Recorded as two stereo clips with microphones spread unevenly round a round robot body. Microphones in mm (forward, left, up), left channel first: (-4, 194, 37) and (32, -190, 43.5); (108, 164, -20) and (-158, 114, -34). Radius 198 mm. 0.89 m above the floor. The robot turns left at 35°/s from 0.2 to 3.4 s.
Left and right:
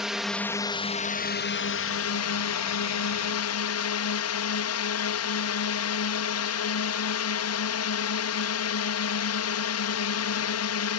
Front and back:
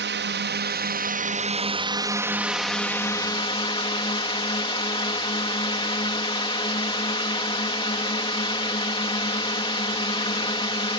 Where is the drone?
175° right; by 11.0 s 75° left.